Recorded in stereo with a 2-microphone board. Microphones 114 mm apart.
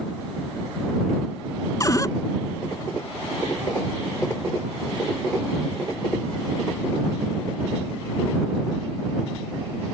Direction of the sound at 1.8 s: 30° left (ahead or behind).